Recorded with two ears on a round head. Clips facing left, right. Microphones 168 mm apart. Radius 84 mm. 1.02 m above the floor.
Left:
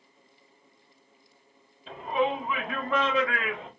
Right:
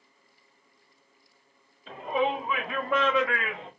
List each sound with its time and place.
1.9 s a shout: centre (ahead or behind), 4 m; by 3.7 s 20° right (ahead or behind), 4.5 m